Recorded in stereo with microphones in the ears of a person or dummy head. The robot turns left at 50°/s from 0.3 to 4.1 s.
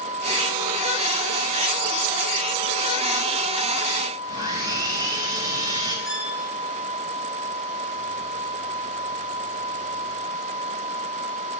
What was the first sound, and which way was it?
Sawing, 25° right (ahead or behind).